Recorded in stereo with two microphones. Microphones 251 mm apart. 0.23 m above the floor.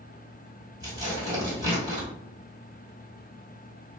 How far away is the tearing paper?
About 1.6 m.